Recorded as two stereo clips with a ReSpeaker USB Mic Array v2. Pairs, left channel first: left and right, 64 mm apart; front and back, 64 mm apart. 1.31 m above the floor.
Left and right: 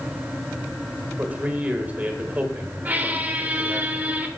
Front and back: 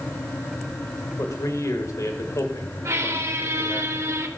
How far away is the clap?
No clap in this recording.